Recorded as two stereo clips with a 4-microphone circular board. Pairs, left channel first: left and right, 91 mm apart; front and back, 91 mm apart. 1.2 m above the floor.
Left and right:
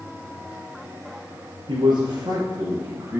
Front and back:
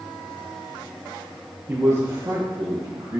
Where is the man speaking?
115° right, 1.1 m; by 3.2 s 145° right, 1.9 m.